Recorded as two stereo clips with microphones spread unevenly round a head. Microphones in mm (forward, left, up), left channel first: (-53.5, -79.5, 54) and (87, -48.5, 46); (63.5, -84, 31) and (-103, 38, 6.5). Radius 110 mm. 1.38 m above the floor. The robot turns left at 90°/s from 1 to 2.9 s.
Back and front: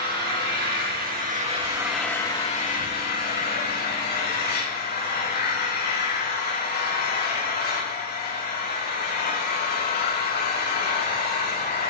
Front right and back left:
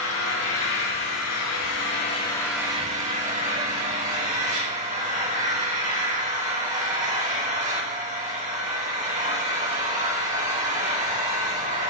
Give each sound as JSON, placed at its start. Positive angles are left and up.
{"t": 0.0, "sound": "an engine running", "azimuth_deg": 15, "distance_m": 7.0}